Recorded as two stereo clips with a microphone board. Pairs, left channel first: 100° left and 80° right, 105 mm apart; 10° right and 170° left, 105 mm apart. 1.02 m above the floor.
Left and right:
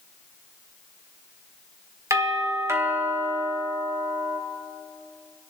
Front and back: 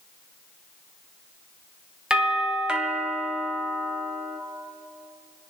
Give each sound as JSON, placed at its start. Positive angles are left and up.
{"t": 2.1, "sound": "a doorbell", "azimuth_deg": -115, "distance_m": 1.5}